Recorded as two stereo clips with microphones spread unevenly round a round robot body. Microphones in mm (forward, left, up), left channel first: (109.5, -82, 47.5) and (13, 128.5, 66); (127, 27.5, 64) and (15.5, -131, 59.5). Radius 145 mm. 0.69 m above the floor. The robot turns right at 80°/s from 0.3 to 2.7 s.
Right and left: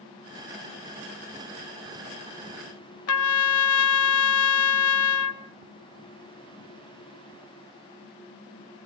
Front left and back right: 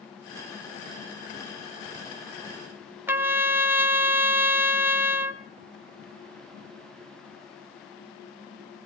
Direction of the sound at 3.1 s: 45° right.